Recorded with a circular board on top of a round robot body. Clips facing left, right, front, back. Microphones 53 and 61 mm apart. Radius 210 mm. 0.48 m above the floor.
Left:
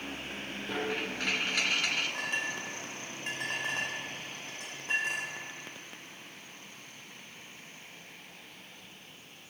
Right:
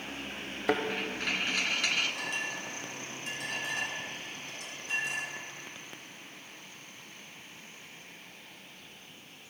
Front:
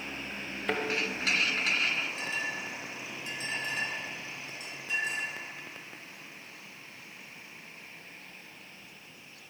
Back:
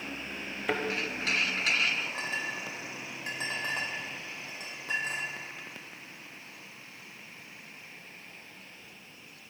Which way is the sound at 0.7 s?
95° right.